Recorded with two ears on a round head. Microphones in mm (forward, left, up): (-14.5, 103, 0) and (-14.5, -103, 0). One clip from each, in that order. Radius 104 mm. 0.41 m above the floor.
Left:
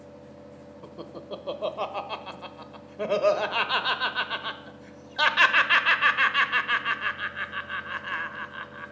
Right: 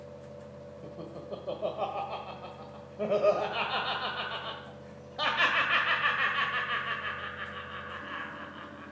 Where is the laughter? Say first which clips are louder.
Left 3 dB; 50° left (ahead or behind), 1.3 m.